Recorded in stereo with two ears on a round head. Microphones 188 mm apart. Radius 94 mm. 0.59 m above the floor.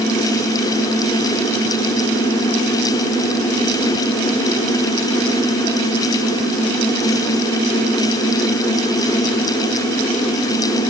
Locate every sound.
Only background noise.